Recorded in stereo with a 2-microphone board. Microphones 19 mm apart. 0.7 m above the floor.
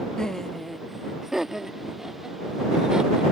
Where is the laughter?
35° left (ahead or behind); by 3.2 s 45° right (ahead or behind).